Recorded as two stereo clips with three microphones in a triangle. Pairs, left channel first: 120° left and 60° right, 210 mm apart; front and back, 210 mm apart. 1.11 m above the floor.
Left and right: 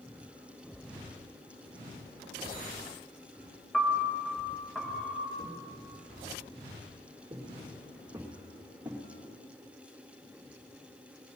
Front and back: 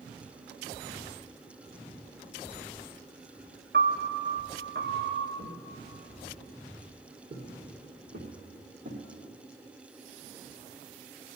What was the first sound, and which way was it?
A piano, 155° right.